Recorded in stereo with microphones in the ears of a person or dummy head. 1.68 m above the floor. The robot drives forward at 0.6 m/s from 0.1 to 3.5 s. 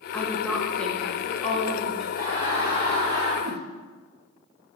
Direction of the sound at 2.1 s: 25° right (ahead or behind).